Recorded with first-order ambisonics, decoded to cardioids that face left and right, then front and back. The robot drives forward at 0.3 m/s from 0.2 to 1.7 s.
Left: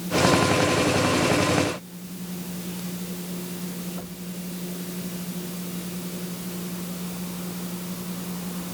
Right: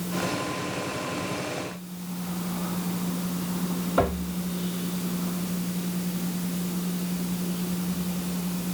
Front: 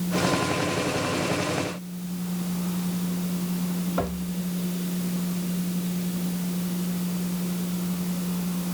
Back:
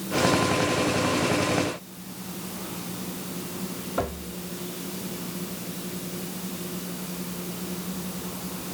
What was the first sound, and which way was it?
Only background noise.